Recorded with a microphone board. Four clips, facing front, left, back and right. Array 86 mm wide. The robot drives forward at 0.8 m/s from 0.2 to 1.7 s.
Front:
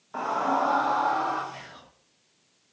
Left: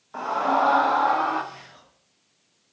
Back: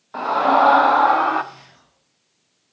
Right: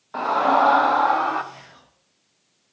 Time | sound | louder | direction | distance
0.1 | a scream | right 4 dB, back 9 dB | 130° right | 0.5 m
1.5 | whispering | even, front 4 dB | 10° right | 1.1 m